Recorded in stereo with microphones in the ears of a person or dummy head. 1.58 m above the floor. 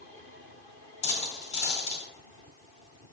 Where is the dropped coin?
45° left (ahead or behind), 1.5 m.